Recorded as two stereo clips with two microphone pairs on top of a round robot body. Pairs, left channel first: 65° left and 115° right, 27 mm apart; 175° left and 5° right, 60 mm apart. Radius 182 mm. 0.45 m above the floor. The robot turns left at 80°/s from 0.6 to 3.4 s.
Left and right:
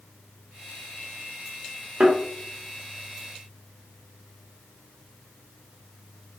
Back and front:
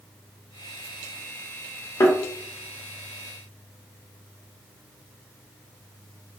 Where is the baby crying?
No baby crying in this recording.